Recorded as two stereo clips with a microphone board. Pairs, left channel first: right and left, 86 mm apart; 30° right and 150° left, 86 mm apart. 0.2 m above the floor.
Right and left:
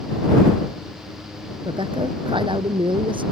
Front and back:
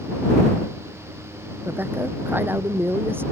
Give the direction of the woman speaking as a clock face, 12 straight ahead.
9 o'clock.